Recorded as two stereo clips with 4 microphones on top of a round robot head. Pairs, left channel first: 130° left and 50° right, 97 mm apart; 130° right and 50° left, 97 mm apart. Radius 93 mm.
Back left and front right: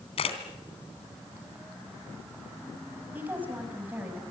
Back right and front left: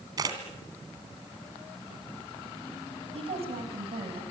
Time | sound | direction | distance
0.2 | a camera shutter | 105° left | 3 m
3.1 | a woman speaking | 25° left | 5.5 m